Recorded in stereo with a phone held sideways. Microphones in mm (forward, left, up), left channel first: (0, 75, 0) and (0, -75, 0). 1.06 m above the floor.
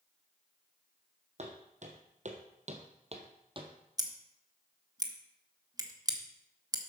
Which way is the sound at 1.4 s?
50° right (ahead or behind).